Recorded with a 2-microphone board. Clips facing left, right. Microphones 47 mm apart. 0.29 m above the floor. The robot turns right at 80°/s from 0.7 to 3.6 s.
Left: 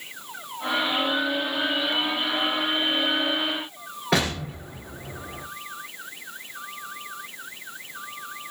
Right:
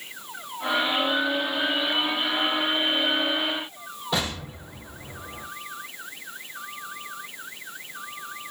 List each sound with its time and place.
4.1 s an explosion: 80° left, 0.9 m